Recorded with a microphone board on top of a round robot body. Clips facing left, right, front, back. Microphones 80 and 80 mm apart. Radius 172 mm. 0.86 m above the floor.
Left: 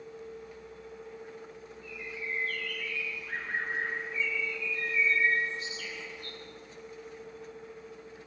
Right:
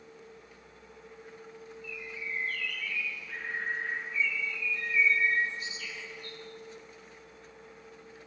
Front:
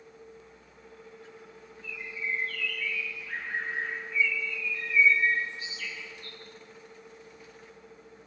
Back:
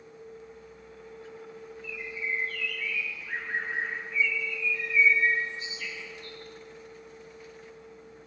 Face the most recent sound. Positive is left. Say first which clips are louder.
# left 2 dB, even
turn(degrees=115)